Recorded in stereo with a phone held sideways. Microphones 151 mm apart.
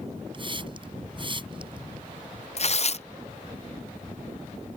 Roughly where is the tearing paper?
Left.